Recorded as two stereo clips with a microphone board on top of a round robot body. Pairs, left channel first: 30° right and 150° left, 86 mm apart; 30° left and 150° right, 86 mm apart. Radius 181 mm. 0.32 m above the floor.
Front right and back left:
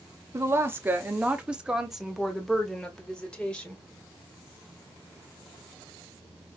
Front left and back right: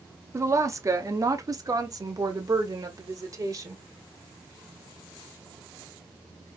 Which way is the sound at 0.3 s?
Straight behind.